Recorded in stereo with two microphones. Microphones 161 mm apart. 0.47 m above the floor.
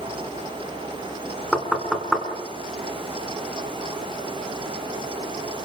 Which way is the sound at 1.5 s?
Centre (ahead or behind).